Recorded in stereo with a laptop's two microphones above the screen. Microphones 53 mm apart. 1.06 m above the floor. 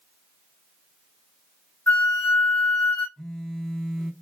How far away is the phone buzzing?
About 0.7 m.